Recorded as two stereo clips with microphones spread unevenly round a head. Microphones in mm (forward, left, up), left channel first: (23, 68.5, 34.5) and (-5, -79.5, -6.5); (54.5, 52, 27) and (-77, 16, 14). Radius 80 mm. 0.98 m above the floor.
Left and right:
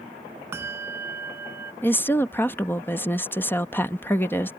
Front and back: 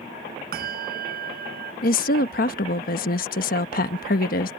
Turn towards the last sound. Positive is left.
turn(degrees=-5)